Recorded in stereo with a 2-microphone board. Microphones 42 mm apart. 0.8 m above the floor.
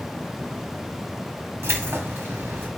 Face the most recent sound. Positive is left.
turn(degrees=-70)  # may be behind; listen again after turning